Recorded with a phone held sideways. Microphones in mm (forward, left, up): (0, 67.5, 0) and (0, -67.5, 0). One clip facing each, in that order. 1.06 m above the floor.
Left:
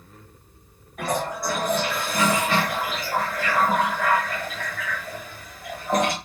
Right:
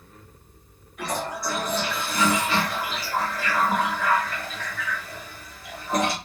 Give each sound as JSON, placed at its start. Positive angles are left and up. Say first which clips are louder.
{"t": 1.0, "sound": "a toilet flushing", "louder": "left 3 dB", "side_deg": 55, "distance_m": 0.9}